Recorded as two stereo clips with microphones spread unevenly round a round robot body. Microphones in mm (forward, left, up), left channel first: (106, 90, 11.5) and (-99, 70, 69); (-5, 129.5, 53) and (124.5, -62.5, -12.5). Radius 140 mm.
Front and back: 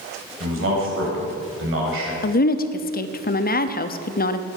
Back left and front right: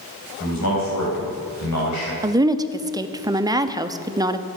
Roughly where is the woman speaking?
Ahead.